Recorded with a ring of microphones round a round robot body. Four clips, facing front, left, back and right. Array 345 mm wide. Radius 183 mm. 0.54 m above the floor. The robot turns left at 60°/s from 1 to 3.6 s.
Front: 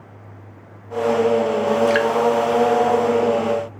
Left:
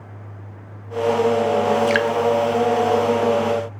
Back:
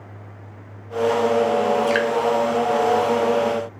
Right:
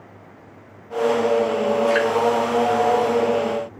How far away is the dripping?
About 0.5 m.